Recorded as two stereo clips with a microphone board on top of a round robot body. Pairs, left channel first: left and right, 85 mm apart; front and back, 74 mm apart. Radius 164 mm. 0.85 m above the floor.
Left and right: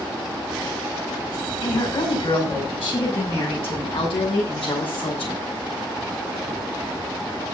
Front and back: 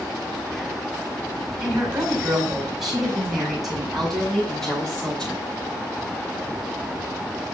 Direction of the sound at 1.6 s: 105° left.